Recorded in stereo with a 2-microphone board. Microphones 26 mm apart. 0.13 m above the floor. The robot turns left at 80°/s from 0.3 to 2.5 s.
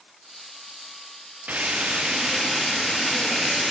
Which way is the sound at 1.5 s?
100° right.